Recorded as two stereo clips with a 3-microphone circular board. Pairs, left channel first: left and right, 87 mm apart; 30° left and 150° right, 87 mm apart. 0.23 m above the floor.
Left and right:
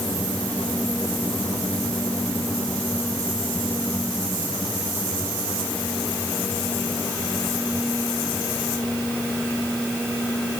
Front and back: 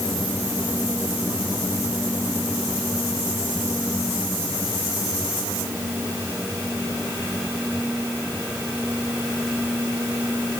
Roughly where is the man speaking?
No man speaking in this recording.